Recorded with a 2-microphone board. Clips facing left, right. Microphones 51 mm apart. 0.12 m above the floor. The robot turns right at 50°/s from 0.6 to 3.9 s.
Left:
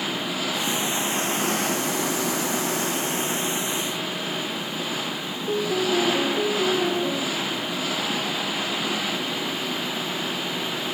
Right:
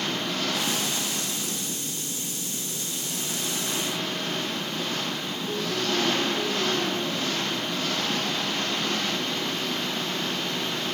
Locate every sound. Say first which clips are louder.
0.0 s an engine running: left 1 dB; 10° left; by 11.0 s 175° left
5.5 s a piano: left 6 dB; 30° left (ahead or behind)